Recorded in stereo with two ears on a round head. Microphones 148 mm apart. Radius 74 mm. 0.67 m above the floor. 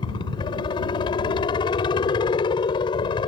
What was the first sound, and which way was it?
A helicopter, 30° left (ahead or behind).